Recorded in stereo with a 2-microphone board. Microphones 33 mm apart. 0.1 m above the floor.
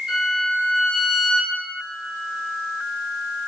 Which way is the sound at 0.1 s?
15° right (ahead or behind).